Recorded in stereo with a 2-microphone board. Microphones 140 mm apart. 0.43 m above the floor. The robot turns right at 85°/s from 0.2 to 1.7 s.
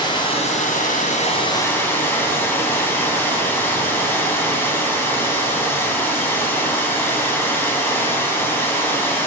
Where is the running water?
35° left, 3 m; by 9.3 s 165° left, 3 m.